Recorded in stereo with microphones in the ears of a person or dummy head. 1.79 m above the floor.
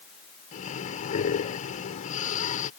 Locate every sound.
0.5 s breathing: 45° left (ahead or behind)